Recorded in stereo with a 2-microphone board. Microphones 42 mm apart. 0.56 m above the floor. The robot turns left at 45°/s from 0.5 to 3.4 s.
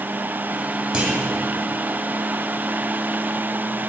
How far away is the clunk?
About 1.2 m.